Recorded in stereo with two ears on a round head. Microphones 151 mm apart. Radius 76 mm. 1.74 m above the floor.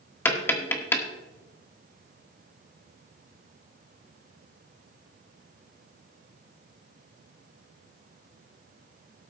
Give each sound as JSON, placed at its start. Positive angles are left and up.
{"t": 0.2, "sound": "tapping", "side_deg": 15, "distance_m": 1.4}